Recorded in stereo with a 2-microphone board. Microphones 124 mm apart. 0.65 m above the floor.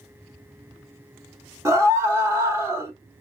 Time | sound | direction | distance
1.6 | a scream | 25° right (ahead or behind) | 0.8 m